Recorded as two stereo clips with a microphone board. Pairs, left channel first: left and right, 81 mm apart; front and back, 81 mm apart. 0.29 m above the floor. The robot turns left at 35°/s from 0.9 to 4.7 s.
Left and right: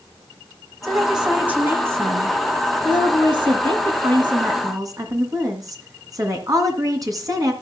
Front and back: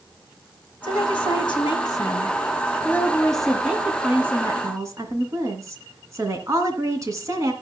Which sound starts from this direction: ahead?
A woman speaking, at 0.8 s.